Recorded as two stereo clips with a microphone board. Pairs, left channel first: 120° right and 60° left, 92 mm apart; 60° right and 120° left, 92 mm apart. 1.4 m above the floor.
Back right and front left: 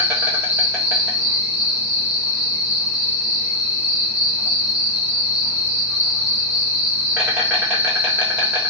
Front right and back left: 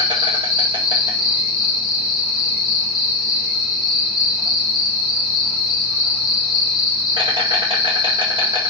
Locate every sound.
0.0 s an insect: 130° left, 1.0 m